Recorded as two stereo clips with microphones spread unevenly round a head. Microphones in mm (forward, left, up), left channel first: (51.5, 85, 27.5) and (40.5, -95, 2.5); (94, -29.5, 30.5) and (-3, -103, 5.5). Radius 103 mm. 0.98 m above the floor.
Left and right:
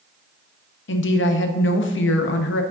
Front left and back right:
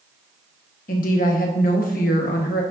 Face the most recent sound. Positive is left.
turn(degrees=70)